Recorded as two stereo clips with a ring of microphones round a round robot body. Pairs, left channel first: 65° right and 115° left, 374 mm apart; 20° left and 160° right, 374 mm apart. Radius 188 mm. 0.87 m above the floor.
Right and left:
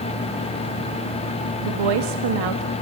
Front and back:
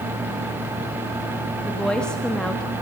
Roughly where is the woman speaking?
Left.